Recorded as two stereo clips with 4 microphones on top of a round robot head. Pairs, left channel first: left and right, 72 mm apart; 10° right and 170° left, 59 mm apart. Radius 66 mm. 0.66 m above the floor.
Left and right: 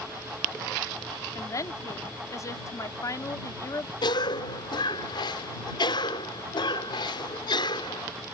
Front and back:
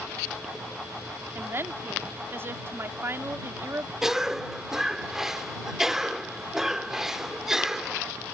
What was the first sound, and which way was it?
A woman speaking, 125° left.